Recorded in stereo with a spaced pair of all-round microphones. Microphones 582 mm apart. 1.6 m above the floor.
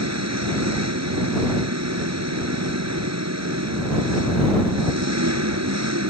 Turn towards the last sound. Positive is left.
turn(degrees=-25)  # may be behind; listen again after turning